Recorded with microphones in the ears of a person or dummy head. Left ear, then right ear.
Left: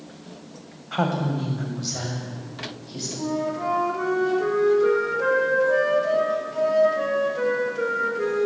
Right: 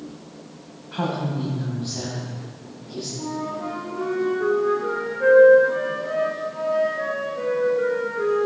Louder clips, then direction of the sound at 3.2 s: Left 4 dB; 80° left.